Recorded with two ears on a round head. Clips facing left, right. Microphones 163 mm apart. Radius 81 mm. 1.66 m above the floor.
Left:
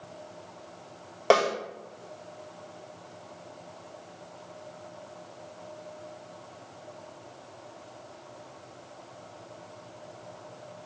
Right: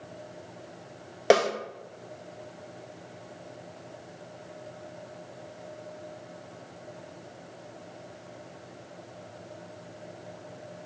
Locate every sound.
1.3 s a snare drum: 15° right (ahead or behind), 1.3 m